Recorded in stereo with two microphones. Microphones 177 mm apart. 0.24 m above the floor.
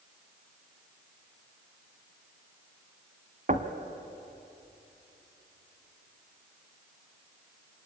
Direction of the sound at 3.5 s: 45° right (ahead or behind).